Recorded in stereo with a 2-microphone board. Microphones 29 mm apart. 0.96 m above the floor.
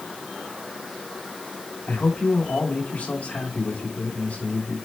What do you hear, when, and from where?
1.9 s a man speaking: 65° left (ahead or behind), 4.5 m